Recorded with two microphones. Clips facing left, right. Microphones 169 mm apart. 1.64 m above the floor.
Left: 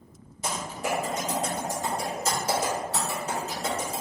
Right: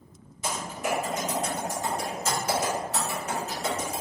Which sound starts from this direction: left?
Typing on a keyboard, at 0.4 s.